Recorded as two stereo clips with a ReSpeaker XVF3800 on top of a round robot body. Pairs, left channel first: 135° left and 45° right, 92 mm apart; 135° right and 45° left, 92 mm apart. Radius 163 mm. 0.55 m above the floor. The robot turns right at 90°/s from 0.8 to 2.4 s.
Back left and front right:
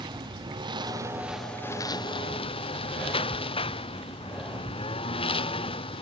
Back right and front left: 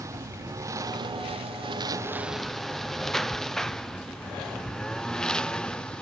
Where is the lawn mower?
10° right; by 6.0 s 145° left.